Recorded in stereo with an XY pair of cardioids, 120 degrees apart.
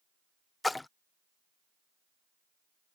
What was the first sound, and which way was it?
A splash, 10° left.